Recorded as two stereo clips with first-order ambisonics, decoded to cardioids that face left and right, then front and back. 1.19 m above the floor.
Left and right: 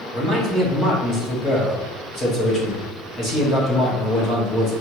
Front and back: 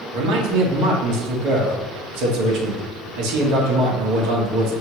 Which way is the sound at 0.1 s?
160° left.